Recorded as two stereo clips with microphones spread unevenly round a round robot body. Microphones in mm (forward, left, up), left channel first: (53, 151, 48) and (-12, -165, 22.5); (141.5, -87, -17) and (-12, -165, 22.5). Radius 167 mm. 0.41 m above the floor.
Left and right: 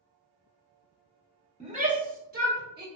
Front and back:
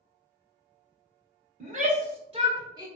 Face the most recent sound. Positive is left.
turn(degrees=-80)